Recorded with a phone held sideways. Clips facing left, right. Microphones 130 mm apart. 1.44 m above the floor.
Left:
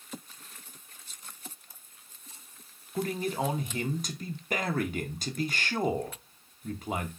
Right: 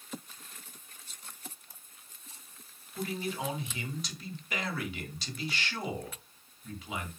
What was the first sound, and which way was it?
A man speaking, 45° left (ahead or behind).